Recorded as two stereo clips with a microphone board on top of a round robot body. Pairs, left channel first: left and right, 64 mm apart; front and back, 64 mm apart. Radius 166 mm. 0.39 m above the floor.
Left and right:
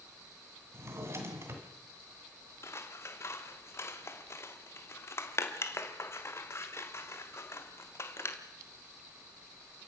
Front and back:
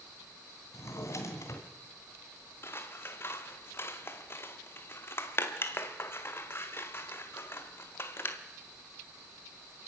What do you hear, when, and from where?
0.7 s a drawer: 45° right, 2.5 m
2.6 s scissors: 50° left, 1.9 m